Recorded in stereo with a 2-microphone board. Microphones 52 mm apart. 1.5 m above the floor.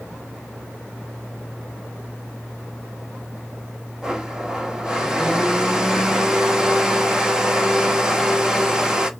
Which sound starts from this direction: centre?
A blender, at 4.0 s.